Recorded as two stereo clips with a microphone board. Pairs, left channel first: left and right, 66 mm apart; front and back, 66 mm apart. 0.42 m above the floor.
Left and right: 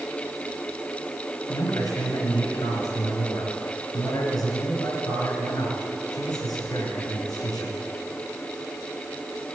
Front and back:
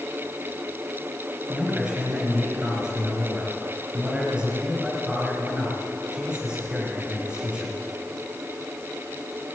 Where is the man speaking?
105° left, 5 m.